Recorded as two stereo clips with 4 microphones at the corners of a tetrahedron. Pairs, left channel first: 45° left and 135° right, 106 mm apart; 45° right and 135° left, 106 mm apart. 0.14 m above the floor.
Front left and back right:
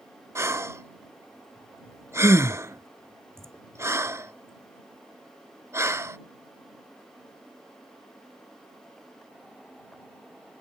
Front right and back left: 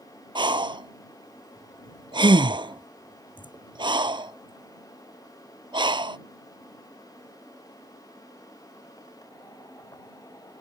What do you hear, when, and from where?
0.3 s breathing: 165° left